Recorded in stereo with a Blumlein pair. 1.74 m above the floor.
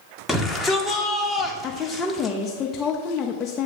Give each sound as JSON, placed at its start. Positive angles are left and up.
{"t": 0.3, "sound": "a shout", "azimuth_deg": 5, "distance_m": 0.9}
{"t": 1.6, "sound": "a woman speaking", "azimuth_deg": 20, "distance_m": 0.6}